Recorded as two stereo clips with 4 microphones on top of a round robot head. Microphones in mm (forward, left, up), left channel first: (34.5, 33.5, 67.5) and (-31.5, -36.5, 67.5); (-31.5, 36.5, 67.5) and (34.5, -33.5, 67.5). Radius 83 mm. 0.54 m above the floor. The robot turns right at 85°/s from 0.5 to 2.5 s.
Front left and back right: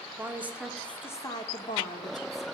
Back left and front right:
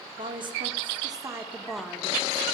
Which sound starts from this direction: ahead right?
A woman speaking, at 0.2 s.